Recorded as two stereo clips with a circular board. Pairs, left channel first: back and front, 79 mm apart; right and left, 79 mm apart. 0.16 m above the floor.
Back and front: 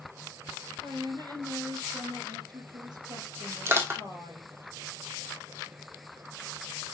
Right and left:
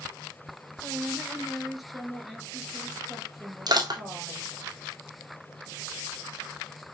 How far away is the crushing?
About 1.9 m.